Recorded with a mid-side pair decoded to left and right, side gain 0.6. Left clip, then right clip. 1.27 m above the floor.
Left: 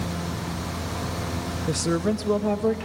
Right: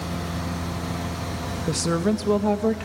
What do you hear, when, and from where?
1.7 s a woman speaking: 10° right, 1.3 m